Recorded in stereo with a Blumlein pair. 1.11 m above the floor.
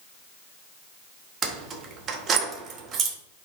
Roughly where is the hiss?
No hiss in this recording.